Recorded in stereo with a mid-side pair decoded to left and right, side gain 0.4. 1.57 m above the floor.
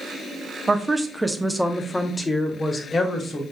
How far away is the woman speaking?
About 0.8 m.